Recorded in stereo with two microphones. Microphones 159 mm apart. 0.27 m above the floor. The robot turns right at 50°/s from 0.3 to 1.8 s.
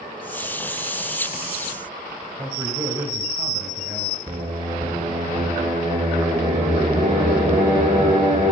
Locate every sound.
2.4 s a man speaking: 15° right (ahead or behind), 1.6 m
4.3 s singing: 35° right (ahead or behind), 3 m